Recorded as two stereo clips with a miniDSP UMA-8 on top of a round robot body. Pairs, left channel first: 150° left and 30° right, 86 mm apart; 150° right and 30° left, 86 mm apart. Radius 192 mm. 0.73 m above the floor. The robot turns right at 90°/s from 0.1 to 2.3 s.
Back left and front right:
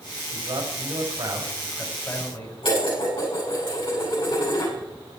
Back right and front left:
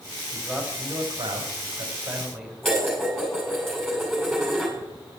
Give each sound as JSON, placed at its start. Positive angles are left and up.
{"t": 0.3, "sound": "a man speaking", "azimuth_deg": -60, "distance_m": 3.5}
{"t": 2.6, "sound": "dishes clattering", "azimuth_deg": 125, "distance_m": 6.5}